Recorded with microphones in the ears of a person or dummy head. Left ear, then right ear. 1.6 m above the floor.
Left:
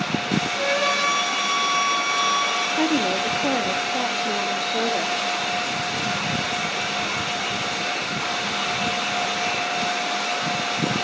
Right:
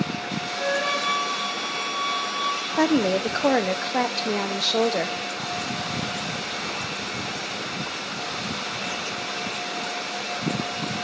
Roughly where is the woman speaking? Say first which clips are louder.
Even; right.